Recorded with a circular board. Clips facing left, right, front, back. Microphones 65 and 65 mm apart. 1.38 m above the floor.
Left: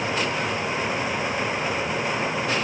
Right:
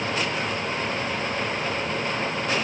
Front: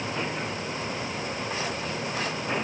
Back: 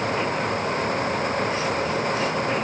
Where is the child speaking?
No child speaking in this recording.